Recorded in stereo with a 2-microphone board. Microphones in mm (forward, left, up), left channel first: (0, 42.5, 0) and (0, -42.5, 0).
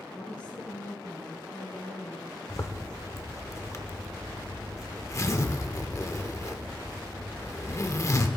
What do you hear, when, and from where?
0.1 s a woman speaking: 15° left (ahead or behind), 5 m
2.5 s a zipper: 35° left (ahead or behind), 0.8 m